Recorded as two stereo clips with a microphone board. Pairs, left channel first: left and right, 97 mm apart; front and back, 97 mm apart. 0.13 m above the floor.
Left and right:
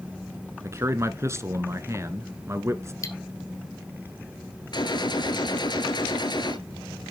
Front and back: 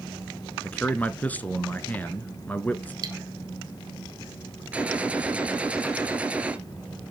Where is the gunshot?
105° left, 2 m.